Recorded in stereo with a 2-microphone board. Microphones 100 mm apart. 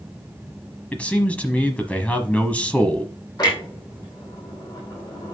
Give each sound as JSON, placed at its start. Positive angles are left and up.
{"t": 0.9, "sound": "a man speaking", "side_deg": 15, "distance_m": 1.1}
{"t": 3.4, "sound": "a clunk", "side_deg": 45, "distance_m": 4.0}